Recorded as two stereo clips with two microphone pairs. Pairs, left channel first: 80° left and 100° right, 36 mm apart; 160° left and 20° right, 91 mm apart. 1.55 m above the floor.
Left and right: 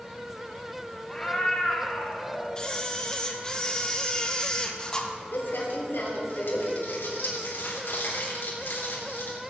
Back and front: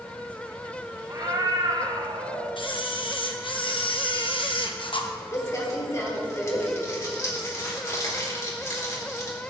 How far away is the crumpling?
About 3.5 m.